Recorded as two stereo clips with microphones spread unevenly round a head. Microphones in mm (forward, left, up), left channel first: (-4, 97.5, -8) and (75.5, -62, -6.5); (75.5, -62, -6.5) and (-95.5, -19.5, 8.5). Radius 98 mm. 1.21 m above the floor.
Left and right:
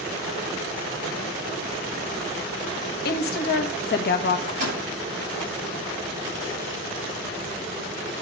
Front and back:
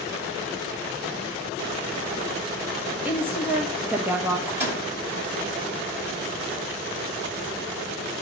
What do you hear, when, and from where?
3.0 s a woman speaking: 85° left, 1.3 m
4.5 s a microwave: 120° right, 7.5 m